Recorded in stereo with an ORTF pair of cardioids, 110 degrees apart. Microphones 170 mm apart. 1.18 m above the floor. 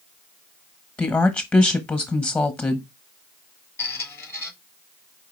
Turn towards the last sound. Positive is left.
turn(degrees=15)